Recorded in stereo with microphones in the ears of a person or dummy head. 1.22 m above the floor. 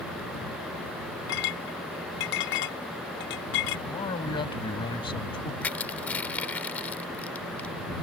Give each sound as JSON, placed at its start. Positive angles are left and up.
{"t": 1.3, "sound": "a clink", "side_deg": 60}
{"t": 3.9, "sound": "a man speaking", "side_deg": 30}
{"t": 5.6, "sound": "crushing", "side_deg": 10}